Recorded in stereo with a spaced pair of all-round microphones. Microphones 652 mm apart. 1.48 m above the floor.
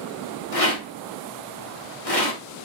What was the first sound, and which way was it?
A rattle, 60° left (ahead or behind).